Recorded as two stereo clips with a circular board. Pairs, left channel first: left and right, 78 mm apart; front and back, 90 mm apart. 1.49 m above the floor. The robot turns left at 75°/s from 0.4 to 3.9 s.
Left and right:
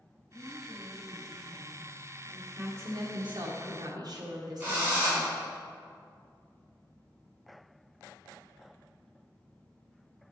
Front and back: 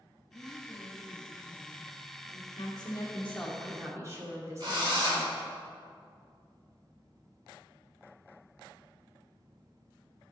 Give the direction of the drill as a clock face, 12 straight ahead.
5 o'clock.